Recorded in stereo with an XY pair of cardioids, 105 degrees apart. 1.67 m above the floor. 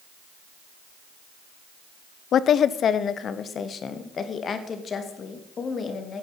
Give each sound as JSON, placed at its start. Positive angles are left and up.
{"t": 2.3, "sound": "a woman speaking", "azimuth_deg": 60, "distance_m": 0.7}